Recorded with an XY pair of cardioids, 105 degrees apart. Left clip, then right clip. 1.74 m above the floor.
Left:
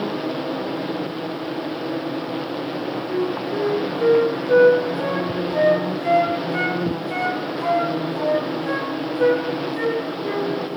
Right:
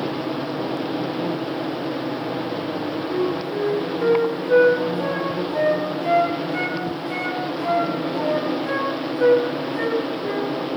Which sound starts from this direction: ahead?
A flute, at 3.1 s.